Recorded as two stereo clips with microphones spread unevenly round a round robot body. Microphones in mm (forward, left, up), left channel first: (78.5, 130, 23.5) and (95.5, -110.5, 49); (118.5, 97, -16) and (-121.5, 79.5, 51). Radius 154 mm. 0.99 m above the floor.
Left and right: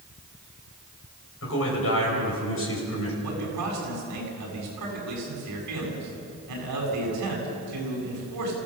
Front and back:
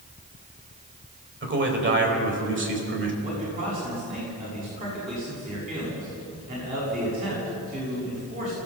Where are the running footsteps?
No running footsteps in this recording.